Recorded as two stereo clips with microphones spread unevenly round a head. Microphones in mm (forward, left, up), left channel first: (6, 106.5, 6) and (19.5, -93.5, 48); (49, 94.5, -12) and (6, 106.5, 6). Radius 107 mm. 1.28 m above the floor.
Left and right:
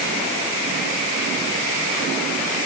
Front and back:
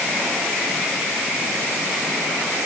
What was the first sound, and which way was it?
Only background noise.